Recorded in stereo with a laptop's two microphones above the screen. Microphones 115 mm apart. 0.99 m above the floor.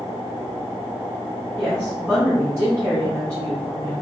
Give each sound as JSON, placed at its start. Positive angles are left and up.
{"t": 1.6, "sound": "a woman speaking", "side_deg": 10, "distance_m": 1.0}